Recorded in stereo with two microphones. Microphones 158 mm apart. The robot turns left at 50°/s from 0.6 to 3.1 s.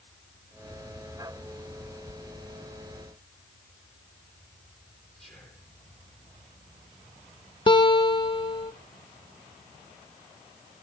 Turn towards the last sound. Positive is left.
turn(degrees=35)  # may be behind; listen again after turning